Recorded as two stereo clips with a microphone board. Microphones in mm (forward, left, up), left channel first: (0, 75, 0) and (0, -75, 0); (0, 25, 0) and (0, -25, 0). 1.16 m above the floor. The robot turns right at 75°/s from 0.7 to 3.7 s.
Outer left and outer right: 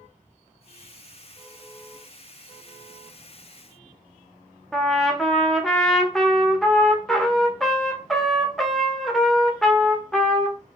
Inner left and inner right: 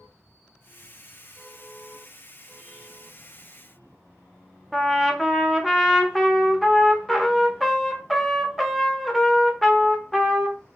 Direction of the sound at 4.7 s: 5° left (ahead or behind).